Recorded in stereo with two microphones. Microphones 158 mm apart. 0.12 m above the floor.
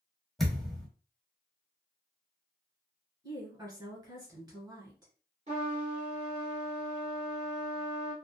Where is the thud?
Centre (ahead or behind), 1.2 m.